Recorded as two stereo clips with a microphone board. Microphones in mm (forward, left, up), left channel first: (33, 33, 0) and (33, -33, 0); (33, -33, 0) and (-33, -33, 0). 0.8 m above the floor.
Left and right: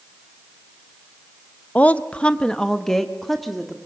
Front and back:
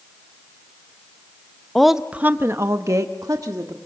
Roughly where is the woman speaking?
Left.